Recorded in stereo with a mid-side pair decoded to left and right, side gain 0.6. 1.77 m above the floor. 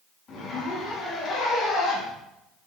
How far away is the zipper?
About 2.5 m.